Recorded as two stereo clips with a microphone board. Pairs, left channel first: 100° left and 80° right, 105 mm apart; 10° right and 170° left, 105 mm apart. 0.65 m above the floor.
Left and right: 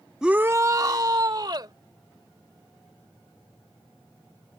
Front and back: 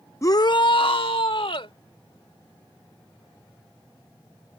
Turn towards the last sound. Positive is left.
turn(degrees=-35)